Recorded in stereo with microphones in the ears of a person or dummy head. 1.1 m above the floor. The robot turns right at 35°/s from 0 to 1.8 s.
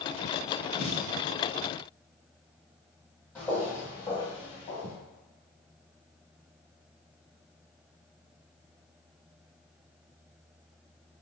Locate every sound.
0.8 s a snare drum: 10° right (ahead or behind), 1.5 m; by 1.1 s 20° right (ahead or behind), 1.5 m
3.4 s footsteps: 5° left (ahead or behind), 1.7 m; by 5.0 s 35° left (ahead or behind), 1.3 m